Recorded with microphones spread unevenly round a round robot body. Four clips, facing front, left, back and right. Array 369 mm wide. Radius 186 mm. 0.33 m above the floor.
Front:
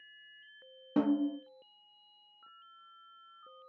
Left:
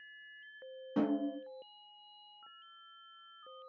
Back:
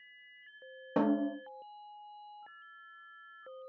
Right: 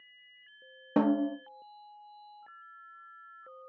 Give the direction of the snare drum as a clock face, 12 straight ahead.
4 o'clock.